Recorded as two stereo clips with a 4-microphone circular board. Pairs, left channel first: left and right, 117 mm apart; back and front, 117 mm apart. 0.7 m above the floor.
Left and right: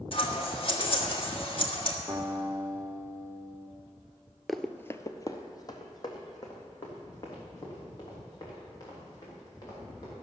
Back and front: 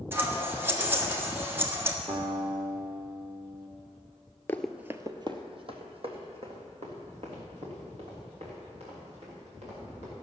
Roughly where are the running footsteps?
Behind.